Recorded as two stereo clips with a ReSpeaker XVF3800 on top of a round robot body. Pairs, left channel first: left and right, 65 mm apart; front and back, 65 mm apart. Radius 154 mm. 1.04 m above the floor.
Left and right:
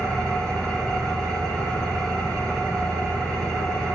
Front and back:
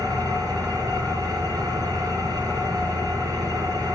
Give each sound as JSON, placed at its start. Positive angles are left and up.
{"t": 0.0, "sound": "an engine running", "azimuth_deg": 175, "distance_m": 3.5}